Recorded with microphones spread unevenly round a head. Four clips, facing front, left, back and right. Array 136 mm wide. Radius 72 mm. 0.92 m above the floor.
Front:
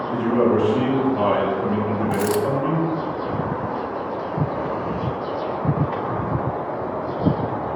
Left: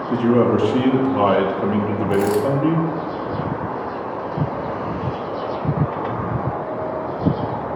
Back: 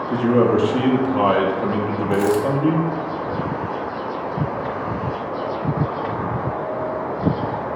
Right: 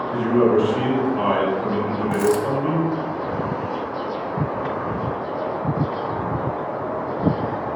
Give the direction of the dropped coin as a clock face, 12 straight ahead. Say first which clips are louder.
Left 1 dB, back 5 dB; 1 o'clock.